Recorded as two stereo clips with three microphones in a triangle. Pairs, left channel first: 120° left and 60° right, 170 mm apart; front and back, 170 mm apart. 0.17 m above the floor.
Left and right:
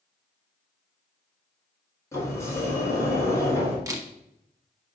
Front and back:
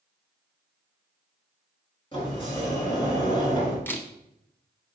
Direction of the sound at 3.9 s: 55° right.